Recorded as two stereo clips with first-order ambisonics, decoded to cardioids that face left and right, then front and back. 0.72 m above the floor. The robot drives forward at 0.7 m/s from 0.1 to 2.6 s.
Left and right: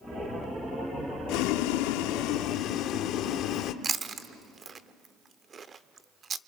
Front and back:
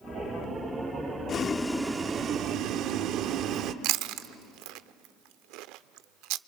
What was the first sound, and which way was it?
Boiling, 60° left.